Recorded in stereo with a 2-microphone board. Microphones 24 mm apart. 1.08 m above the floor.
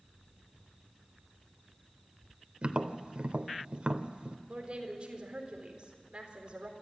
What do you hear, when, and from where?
2.6 s tapping: 45° right (ahead or behind), 1.0 m
4.5 s a woman speaking: 45° right (ahead or behind), 4 m